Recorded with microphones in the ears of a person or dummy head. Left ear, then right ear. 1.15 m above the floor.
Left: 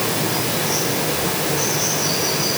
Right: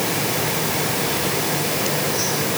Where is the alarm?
I don't hear an alarm.